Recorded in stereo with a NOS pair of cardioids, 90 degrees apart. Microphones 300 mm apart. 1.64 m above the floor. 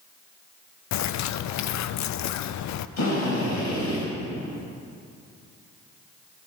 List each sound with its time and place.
0.9 s a bird: 70° left, 0.6 m
3.0 s a drill: 65° left, 6 m